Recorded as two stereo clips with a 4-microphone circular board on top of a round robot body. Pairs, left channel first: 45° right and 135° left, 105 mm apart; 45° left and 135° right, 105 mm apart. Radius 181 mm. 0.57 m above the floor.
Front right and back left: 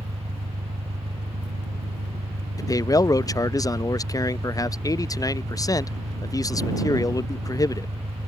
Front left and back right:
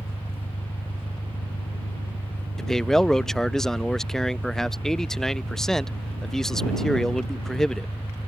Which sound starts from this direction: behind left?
An engine running, at 0.0 s.